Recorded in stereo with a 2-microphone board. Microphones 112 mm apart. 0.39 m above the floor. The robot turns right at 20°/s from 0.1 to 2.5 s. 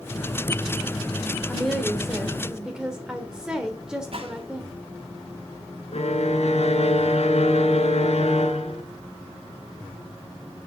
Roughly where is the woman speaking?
Centre.